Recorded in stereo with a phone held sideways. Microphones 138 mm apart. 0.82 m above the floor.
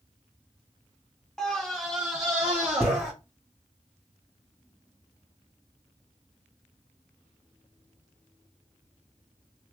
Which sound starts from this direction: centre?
A scream, at 1.4 s.